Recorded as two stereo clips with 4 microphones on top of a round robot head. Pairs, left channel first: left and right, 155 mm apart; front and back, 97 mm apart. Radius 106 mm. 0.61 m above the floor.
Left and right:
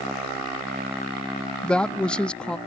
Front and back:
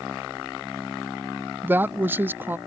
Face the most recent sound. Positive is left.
turn(degrees=165)